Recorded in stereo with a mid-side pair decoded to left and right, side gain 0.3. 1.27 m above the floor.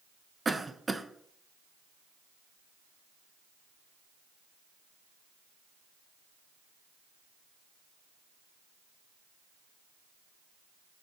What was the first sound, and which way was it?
A cough, 25° right.